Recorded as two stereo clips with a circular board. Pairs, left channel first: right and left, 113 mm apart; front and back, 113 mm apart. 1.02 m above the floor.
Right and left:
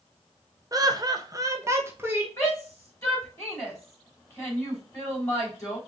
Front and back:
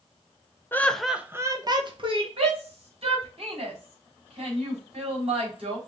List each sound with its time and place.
0.7 s laughter: 60° left, 0.7 m; by 2.3 s 160° left, 1.1 m
2.4 s a shout: 150° right, 3.5 m